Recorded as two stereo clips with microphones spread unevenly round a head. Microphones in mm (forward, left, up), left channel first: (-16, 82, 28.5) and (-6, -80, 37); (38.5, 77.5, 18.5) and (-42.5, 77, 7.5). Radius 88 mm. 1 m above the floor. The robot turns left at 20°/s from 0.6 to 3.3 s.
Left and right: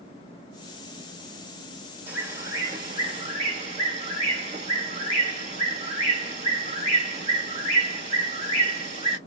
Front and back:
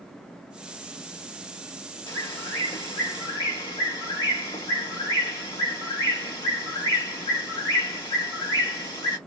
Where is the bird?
10° right, 1.0 m; by 9.2 s 35° right, 1.0 m.